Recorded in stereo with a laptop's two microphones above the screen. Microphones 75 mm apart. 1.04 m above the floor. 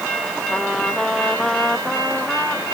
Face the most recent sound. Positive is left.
turn(degrees=0)  # may be behind; listen again after turning